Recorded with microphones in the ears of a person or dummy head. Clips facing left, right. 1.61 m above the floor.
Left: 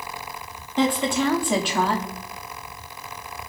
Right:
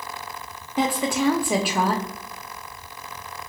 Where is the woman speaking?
5° right (ahead or behind), 0.6 m.